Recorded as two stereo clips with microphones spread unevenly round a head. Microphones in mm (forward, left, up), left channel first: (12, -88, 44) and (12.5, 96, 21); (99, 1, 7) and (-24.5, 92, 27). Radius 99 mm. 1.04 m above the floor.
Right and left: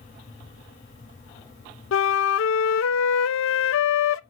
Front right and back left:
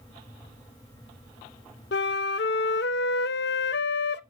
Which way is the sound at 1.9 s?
75° right.